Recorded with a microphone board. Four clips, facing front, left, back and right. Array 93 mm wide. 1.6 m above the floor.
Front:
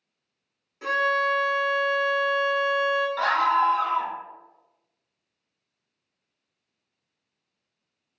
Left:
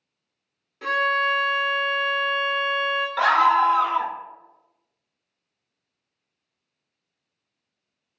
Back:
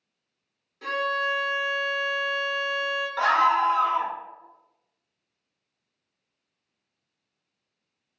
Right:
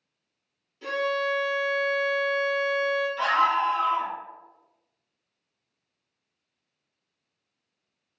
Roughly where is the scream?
Left.